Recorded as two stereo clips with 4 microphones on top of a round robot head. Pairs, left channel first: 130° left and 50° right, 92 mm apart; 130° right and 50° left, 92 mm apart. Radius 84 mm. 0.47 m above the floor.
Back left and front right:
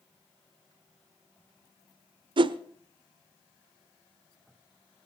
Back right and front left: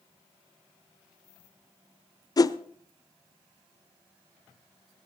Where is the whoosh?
80° right, 0.7 m.